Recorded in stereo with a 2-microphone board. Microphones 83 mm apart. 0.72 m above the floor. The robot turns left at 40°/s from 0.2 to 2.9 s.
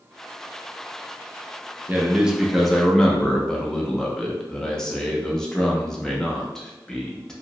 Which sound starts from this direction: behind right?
A man speaking, at 1.9 s.